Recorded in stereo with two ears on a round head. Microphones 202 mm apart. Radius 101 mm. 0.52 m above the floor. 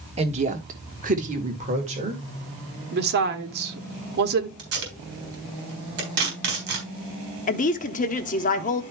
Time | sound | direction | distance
0.2 | a woman speaking | 30° right (ahead or behind) | 1.3 m
2.9 | a woman speaking | 45° right (ahead or behind) | 1.4 m
4.6 | tape being pulled | 50° right (ahead or behind) | 4 m
7.5 | a woman speaking | 35° left (ahead or behind) | 0.9 m